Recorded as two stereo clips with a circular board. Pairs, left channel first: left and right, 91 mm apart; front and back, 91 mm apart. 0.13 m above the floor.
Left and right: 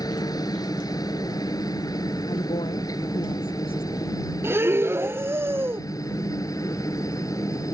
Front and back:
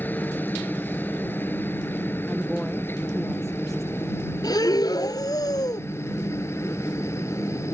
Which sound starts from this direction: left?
A woman speaking, at 2.3 s.